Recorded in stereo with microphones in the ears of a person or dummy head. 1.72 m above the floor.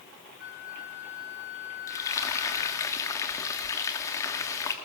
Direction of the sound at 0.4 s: 55° left (ahead or behind).